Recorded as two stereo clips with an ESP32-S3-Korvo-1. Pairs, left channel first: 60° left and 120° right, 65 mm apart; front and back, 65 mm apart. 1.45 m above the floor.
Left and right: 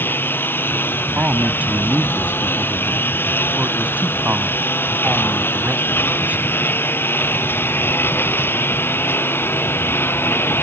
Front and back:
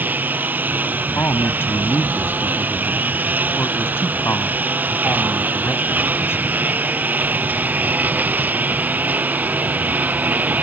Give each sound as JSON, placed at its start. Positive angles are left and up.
{"t": 0.0, "sound": "a lawn mower", "azimuth_deg": 115}
{"t": 1.1, "sound": "a man speaking", "azimuth_deg": -55}